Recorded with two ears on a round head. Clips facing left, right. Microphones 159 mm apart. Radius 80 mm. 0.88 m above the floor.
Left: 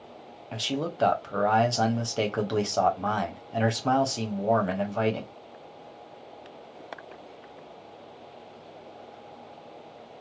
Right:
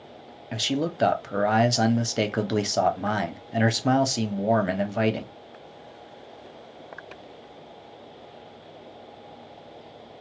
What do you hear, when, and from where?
0.5 s a man speaking: 20° right (ahead or behind), 0.5 m